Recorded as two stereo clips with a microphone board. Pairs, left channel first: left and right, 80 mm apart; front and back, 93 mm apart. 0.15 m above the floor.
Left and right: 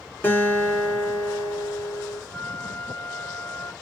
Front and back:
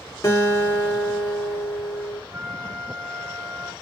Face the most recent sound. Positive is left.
turn(degrees=140)